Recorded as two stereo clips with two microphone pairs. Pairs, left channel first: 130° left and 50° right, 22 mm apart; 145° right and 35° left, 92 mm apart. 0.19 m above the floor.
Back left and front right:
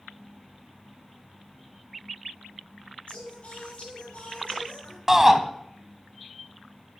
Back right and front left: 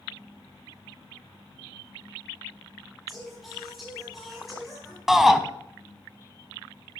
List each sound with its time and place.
3.1 s singing: 125° left, 5.5 m
5.1 s a shout: 45° right, 1.2 m